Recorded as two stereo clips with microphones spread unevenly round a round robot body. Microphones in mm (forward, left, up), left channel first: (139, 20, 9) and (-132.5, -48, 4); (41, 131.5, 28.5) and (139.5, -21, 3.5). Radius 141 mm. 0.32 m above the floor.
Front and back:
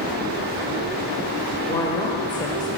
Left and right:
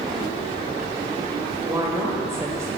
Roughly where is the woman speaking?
Ahead right.